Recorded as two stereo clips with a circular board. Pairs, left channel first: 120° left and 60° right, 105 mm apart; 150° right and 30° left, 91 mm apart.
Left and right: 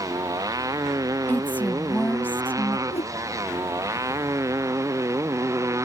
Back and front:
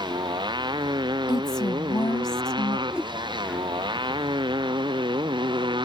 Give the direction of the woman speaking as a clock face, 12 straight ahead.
6 o'clock.